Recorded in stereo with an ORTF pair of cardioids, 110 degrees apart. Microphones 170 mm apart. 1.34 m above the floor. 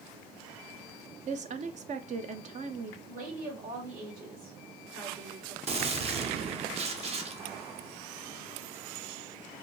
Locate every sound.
1.3 s a woman speaking: 45° right, 0.7 m
3.1 s a woman speaking: 60° right, 2 m
5.7 s a gunshot: 40° right, 0.8 m